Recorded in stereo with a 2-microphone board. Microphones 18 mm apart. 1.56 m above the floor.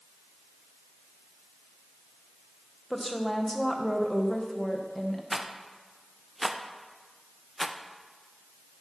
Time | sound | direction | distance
2.9 | a woman speaking | 10° left (ahead or behind) | 1.3 m
5.3 | a rattle | 15° right (ahead or behind) | 0.6 m